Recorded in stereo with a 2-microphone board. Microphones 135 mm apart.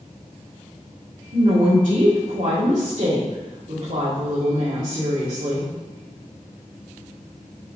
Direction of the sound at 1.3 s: 70° right (ahead or behind).